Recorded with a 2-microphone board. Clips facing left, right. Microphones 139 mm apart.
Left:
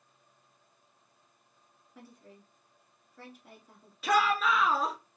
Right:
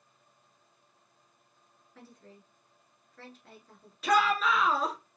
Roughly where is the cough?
I don't hear a cough.